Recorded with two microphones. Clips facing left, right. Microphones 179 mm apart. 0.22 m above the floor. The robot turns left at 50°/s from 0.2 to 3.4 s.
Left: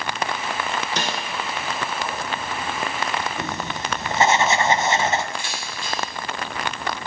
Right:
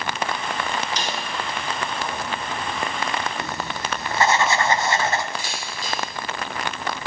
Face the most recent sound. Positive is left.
turn(degrees=-40)  # may be behind; listen again after turning